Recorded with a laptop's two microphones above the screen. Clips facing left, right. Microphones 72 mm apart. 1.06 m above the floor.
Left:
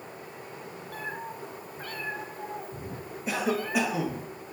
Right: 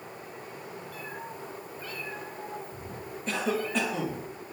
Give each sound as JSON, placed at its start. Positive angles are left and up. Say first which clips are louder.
{"t": 0.9, "sound": "a cat meowing", "louder": "left 6 dB", "side_deg": 50, "distance_m": 1.3}
{"t": 3.3, "sound": "a cough", "louder": "left 1 dB", "side_deg": 10, "distance_m": 1.1}